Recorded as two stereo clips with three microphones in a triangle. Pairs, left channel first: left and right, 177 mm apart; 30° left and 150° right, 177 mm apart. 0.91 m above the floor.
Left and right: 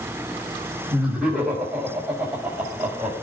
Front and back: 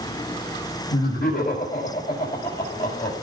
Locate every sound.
0.9 s laughter: 5° right, 5.5 m